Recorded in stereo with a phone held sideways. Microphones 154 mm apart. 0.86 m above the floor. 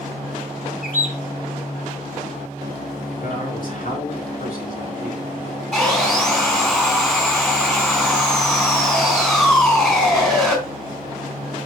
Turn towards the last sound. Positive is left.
turn(degrees=5)  # may be behind; listen again after turning